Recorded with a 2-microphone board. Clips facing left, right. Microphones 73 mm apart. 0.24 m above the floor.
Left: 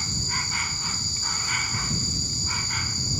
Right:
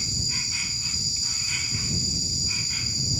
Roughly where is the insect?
Left.